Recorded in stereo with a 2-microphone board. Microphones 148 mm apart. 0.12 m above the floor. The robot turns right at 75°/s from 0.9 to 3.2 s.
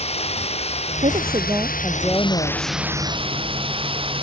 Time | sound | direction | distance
0.0 | running water | 45° left | ?
1.0 | a woman speaking | 65° right | ?